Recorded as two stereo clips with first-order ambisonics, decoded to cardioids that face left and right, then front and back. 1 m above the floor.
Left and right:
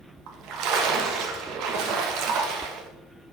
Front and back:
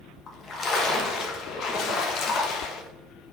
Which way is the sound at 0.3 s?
60° right.